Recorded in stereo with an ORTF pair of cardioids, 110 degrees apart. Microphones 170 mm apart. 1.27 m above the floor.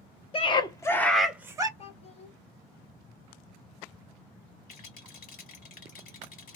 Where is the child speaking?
40° left, 1.2 m.